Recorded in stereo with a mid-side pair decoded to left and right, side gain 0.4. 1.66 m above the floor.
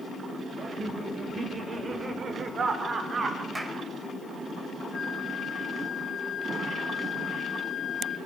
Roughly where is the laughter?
Ahead right.